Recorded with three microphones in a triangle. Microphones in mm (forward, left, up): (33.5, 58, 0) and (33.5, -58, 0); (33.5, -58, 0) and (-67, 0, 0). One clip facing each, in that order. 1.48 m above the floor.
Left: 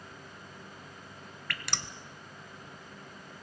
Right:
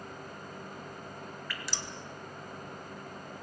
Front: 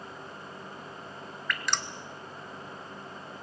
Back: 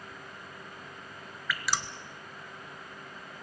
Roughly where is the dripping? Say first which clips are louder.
Left 4 dB, even; ahead left.